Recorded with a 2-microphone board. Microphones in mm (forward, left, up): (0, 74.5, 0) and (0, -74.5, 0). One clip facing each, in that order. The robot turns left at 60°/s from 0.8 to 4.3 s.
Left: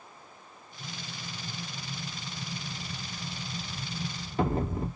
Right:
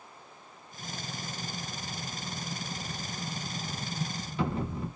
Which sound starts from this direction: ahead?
An explosion, at 0.8 s.